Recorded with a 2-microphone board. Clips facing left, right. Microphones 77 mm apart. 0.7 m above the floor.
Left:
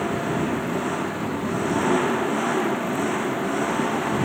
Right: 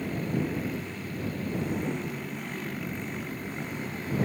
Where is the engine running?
90° left.